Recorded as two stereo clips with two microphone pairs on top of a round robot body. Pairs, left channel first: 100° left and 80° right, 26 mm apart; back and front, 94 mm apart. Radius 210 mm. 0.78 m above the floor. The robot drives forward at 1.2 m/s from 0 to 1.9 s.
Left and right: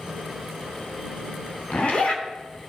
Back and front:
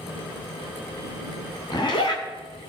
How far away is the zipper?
About 1.0 m.